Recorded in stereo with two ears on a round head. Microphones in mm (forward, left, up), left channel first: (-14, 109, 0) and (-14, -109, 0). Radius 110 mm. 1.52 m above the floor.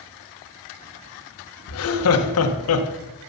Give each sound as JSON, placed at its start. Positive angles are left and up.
{"t": 1.7, "sound": "laughter", "side_deg": 70, "distance_m": 1.6}